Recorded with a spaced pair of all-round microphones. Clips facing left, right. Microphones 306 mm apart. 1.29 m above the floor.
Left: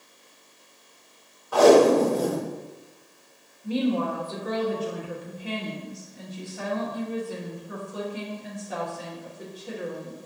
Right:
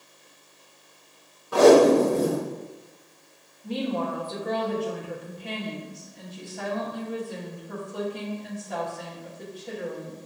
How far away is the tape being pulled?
About 0.7 m.